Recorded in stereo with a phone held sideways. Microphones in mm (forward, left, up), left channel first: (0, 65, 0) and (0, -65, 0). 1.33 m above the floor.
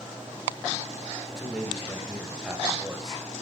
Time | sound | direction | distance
1.3 | a man speaking | 5° right (ahead or behind) | 5 m